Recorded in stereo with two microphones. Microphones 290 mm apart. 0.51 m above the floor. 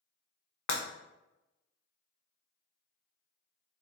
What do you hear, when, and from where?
0.7 s breaking glass: 70° left (ahead or behind), 0.5 m